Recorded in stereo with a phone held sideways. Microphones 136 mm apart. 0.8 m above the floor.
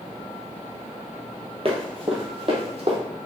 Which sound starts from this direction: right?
Running footsteps, at 1.6 s.